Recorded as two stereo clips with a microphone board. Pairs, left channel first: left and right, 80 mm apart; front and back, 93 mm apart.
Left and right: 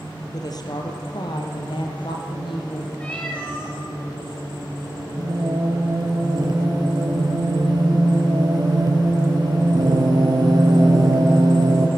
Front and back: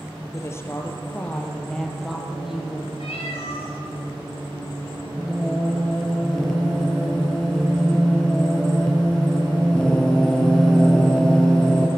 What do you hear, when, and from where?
0.3 s a woman speaking: 55° left, 3 m; by 2.9 s 100° left, 4 m
3.0 s a cat meowing: 15° left, 4.5 m
5.2 s singing: 85° right, 2.5 m